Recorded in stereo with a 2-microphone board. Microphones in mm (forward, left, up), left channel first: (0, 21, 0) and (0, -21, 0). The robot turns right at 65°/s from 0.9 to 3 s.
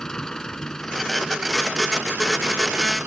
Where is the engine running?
165° left; by 3.1 s 60° right.